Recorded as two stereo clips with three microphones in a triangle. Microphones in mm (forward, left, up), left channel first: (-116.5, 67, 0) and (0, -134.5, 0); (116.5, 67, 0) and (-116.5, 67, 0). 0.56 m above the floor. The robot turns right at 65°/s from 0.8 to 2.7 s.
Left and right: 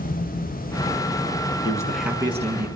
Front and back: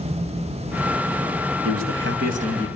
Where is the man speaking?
170° right, 5 m; by 2.7 s 105° right, 5 m.